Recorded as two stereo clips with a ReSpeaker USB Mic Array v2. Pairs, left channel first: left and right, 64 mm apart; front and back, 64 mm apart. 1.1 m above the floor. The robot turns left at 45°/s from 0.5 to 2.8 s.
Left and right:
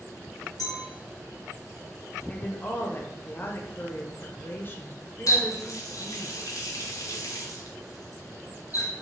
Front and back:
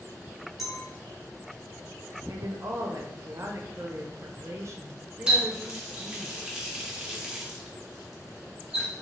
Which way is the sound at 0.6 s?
95° left.